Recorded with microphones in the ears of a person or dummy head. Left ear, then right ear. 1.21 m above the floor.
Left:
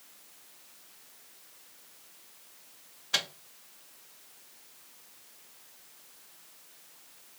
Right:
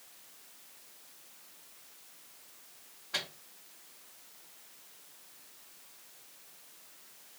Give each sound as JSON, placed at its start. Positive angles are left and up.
{"t": 3.1, "sound": "a microwave", "side_deg": 85, "distance_m": 0.8}